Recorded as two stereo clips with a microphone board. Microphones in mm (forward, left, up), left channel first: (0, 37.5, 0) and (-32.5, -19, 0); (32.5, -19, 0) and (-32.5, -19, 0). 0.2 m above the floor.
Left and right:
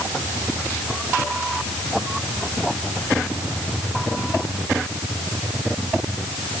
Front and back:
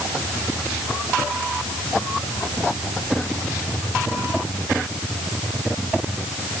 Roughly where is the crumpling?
No crumpling in this recording.